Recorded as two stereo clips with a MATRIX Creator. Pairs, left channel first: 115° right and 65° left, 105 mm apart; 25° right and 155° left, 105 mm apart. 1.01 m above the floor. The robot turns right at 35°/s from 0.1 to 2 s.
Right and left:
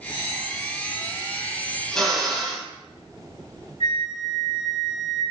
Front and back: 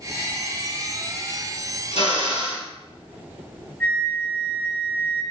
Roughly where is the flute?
Right.